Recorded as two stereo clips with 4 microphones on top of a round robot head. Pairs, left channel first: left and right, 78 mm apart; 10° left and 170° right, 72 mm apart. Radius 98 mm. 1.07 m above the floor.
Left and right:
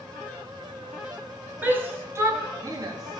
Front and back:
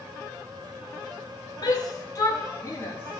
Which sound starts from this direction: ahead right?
A shout, at 1.6 s.